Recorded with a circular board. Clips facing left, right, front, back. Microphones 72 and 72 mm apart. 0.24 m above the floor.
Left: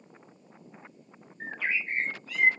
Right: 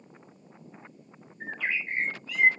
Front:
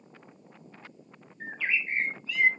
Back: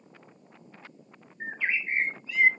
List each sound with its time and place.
1.4 s a bird: 115° left, 1.4 m